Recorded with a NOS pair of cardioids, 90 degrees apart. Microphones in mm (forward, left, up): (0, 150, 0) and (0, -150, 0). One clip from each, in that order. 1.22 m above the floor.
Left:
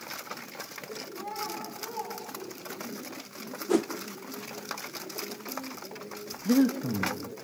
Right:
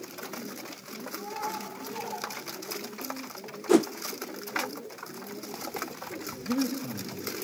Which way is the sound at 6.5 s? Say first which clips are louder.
Left 6 dB; 50° left.